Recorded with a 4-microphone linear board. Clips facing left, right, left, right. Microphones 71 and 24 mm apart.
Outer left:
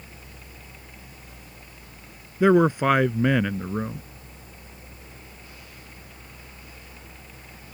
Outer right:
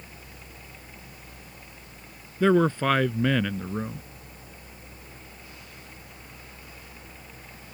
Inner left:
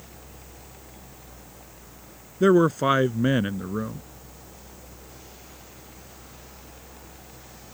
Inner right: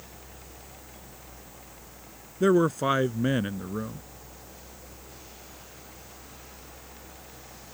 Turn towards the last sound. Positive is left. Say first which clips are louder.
# outer left 3 dB, inner left 4 dB
turn(degrees=15)  # may be behind; listen again after turning